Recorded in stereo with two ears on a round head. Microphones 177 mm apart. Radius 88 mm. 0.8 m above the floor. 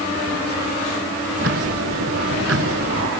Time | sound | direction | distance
1.4 | ticking | 70° right (ahead or behind) | ?